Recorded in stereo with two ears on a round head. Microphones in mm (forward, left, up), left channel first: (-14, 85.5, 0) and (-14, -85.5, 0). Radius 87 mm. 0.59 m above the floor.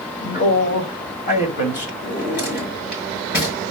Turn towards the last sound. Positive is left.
turn(degrees=50)  # may be behind; listen again after turning